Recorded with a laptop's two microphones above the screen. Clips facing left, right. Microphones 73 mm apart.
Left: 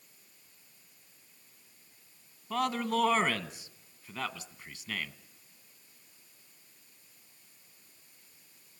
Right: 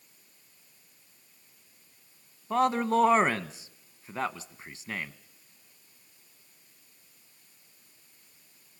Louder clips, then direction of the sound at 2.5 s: Right 6 dB; 30° right (ahead or behind).